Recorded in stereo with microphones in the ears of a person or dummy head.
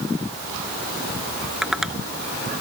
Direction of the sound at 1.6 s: Centre (ahead or behind).